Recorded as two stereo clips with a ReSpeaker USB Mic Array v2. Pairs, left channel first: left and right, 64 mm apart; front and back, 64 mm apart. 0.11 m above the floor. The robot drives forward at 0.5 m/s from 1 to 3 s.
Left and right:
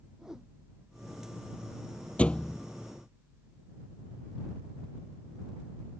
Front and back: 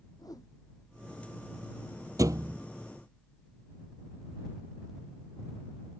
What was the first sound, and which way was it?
A whoosh, 10° right.